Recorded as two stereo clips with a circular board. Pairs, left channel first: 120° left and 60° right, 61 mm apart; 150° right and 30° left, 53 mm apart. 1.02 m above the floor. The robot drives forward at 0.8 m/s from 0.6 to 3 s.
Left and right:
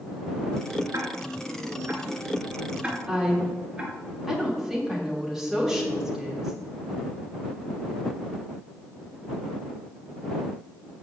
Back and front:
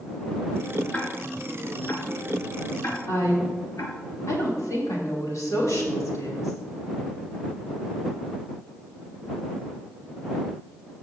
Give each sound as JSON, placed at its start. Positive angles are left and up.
{"t": 0.9, "sound": "ticking", "azimuth_deg": -85, "distance_m": 2.0}
{"t": 3.1, "sound": "a woman speaking", "azimuth_deg": -145, "distance_m": 3.5}